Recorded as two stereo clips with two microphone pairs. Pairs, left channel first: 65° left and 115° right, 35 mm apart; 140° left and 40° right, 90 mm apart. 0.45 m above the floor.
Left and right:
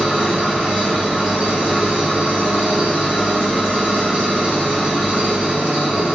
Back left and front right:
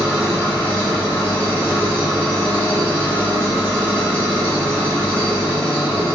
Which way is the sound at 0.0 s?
150° right.